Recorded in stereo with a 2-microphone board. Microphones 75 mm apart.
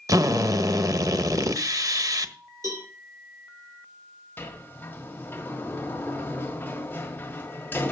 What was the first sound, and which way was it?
A drill, 50° right (ahead or behind).